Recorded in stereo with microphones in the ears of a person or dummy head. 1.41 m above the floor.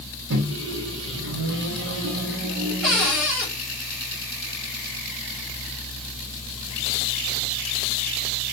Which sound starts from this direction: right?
A microwave, at 0.3 s.